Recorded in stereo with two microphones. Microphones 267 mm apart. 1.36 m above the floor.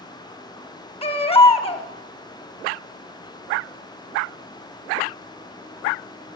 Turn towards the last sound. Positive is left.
turn(degrees=20)  # may be behind; listen again after turning